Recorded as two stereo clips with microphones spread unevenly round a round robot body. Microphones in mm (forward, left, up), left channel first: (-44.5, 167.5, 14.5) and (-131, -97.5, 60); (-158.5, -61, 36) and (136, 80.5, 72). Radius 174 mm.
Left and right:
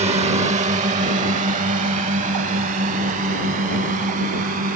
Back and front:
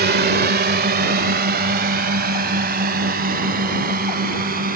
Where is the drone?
35° right; by 4.8 s 40° right.